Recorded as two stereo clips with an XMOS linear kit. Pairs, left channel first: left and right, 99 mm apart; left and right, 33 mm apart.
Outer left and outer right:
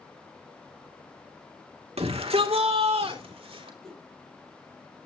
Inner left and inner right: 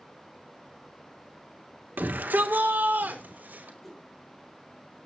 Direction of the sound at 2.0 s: 85° right.